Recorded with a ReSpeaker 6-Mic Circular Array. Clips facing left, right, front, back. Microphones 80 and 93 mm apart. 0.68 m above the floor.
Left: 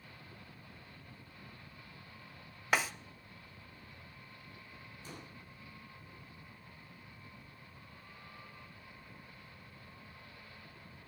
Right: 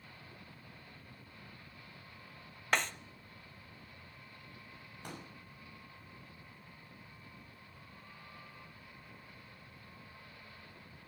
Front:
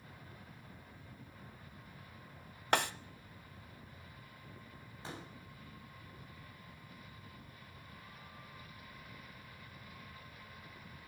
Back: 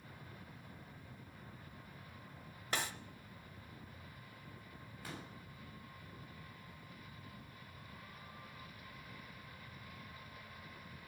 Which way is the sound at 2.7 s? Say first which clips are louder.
Left 1 dB, front 8 dB; 5° left.